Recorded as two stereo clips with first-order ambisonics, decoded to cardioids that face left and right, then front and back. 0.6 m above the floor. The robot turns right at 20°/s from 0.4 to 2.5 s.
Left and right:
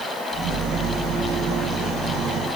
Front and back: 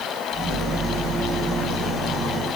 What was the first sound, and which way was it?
Only background noise.